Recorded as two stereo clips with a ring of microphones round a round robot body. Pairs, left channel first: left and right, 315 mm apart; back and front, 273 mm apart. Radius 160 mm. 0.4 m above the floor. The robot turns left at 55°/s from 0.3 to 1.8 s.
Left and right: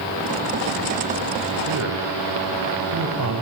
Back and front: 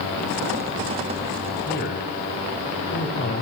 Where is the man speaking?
115° right, 2.5 m; by 3.4 s 125° right, 2.5 m.